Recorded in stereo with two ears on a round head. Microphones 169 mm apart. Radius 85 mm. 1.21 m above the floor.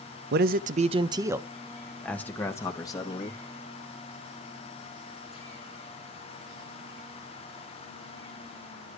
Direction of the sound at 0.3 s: 60° right (ahead or behind).